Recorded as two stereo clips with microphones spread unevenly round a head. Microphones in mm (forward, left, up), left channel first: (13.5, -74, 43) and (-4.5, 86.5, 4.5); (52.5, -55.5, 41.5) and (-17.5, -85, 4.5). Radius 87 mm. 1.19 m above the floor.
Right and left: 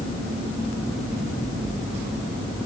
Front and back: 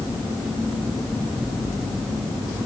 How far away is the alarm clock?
I don't hear an alarm clock.